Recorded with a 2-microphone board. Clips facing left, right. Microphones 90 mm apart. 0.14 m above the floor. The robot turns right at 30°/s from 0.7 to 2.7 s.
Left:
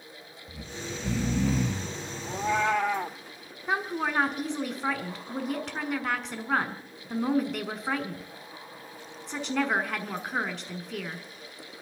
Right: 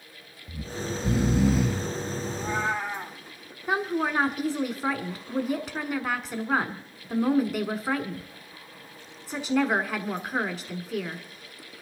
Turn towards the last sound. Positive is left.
turn(degrees=-5)  # may be behind; listen again after turning